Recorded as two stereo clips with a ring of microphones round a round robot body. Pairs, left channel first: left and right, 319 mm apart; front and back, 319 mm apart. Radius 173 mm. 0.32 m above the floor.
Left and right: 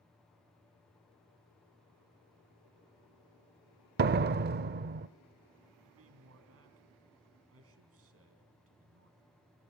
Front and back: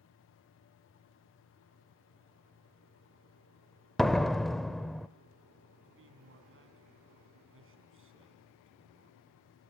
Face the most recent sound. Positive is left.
turn(degrees=-135)